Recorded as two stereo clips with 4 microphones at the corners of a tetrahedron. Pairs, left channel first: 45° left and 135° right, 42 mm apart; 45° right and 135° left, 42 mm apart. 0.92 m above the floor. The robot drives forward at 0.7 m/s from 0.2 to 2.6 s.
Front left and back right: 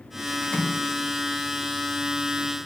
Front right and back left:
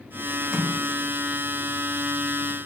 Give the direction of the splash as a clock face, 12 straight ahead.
9 o'clock.